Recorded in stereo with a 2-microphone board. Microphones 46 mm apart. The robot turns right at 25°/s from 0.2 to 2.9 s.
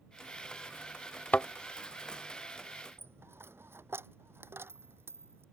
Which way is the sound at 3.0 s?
65° right (ahead or behind).